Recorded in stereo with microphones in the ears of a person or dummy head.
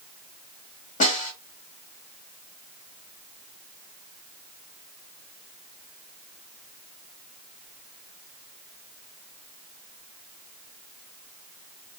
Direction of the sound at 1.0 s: 45° left (ahead or behind).